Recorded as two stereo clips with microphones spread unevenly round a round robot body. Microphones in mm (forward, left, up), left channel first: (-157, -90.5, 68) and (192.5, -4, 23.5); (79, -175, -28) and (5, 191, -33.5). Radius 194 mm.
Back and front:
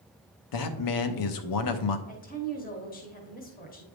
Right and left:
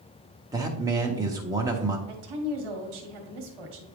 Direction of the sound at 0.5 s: Straight behind.